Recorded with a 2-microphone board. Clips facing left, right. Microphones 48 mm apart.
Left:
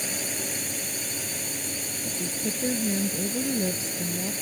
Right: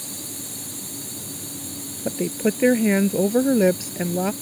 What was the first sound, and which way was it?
A drone, 60° left (ahead or behind).